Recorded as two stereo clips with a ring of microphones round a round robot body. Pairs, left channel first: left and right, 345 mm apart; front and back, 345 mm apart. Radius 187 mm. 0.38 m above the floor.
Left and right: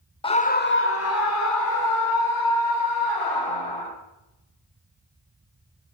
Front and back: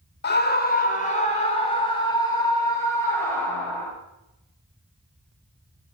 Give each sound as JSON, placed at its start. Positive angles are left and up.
{"t": 0.2, "sound": "a scream", "azimuth_deg": 30, "distance_m": 1.6}